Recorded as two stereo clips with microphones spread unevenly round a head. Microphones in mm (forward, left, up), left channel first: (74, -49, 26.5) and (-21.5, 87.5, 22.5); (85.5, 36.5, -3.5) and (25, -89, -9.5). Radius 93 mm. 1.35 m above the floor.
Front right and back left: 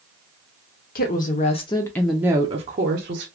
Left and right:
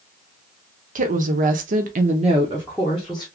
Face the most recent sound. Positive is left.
turn(degrees=150)